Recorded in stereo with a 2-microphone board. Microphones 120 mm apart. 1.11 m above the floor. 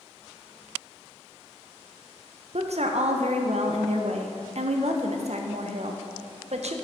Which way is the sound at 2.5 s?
65° right (ahead or behind).